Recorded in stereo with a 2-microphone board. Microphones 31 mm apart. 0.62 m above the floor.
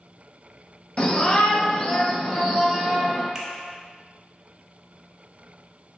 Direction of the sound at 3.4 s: 20° right (ahead or behind).